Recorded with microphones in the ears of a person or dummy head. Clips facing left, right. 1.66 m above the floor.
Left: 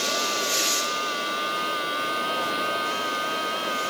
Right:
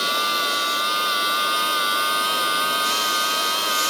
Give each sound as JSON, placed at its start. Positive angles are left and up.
{"t": 0.0, "sound": "a machine running", "side_deg": -60}